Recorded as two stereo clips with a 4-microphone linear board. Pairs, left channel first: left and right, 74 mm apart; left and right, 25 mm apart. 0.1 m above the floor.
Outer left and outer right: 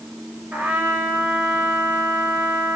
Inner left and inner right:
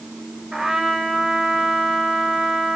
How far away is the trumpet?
About 1.7 m.